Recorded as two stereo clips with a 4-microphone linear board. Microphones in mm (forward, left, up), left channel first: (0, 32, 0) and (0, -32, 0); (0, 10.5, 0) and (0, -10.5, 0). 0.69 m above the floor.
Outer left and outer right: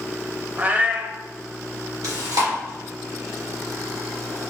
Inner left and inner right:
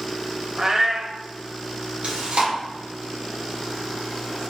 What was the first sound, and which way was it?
A cat meowing, 25° right (ahead or behind).